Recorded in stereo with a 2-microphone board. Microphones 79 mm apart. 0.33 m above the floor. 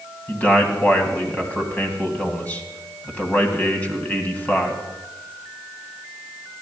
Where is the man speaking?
20° left (ahead or behind), 2.5 m.